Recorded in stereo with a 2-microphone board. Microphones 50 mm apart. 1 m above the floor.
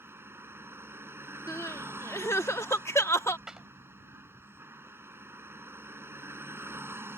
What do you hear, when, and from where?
0.0 s a vehicle: 60° right (ahead or behind)
1.5 s crying: 80° left
3.5 s a clap: 10° right (ahead or behind)